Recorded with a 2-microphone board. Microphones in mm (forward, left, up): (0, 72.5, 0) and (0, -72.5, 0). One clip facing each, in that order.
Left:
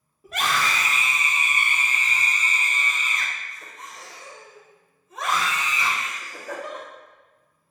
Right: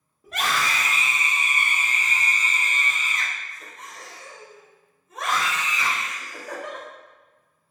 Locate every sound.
0.2 s a scream: 5° left (ahead or behind), 0.8 m; by 6.8 s 65° right (ahead or behind), 3.5 m